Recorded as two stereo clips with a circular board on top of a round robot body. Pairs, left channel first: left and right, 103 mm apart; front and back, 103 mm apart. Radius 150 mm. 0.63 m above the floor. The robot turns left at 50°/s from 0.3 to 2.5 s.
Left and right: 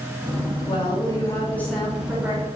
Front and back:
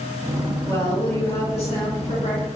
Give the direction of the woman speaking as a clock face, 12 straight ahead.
10 o'clock.